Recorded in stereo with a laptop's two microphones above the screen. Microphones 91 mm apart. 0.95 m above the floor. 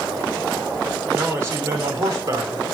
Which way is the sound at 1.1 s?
30° right (ahead or behind).